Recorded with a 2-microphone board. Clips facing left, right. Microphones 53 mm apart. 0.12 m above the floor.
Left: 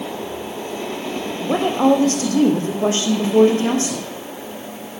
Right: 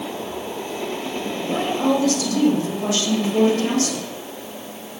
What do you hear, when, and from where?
1.4 s a woman speaking: 40° left (ahead or behind), 5 m; by 4.0 s 25° left (ahead or behind), 5.5 m